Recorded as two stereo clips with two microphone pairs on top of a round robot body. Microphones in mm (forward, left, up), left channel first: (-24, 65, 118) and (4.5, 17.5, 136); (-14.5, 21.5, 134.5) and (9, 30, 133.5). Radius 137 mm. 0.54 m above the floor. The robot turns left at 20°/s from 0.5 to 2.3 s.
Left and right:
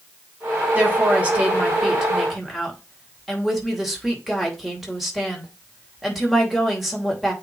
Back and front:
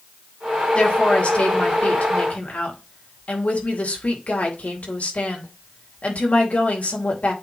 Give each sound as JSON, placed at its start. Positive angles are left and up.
{"t": 0.8, "sound": "a woman speaking", "azimuth_deg": -125, "distance_m": 3.0}